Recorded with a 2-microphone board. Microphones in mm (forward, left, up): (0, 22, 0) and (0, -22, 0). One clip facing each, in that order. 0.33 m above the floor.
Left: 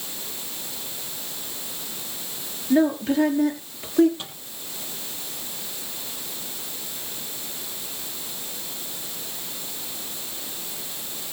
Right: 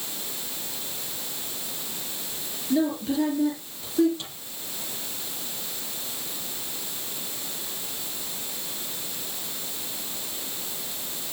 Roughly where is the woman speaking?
Left.